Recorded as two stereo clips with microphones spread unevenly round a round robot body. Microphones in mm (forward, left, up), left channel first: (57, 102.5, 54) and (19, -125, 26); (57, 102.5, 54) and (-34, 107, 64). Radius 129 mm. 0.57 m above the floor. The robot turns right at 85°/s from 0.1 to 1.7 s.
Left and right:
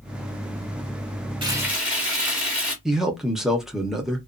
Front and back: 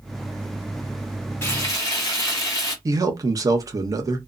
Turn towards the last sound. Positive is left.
turn(degrees=-175)